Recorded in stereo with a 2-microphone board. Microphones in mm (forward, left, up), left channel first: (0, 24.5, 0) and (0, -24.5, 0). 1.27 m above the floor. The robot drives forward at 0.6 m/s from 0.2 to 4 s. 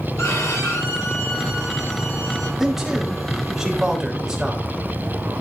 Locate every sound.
0.2 s a violin: 85° left, 7 m; by 2.5 s 80° left, 7 m
2.6 s a man speaking: 10° right (ahead or behind), 4.5 m